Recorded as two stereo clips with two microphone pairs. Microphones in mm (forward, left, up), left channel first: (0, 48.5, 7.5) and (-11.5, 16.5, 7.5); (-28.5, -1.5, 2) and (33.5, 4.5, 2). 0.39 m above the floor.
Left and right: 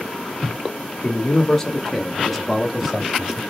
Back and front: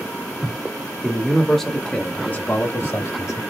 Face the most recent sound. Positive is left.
turn(degrees=175)